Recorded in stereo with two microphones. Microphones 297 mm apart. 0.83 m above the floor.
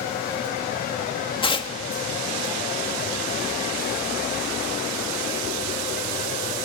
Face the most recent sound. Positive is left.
turn(degrees=15)  # may be behind; listen again after turning